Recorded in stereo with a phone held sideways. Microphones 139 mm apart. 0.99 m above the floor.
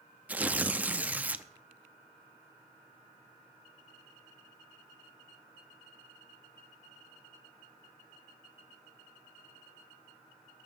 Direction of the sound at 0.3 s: 10° right (ahead or behind).